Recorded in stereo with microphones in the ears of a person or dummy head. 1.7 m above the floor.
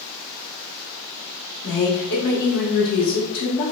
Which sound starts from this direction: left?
A woman speaking, at 1.6 s.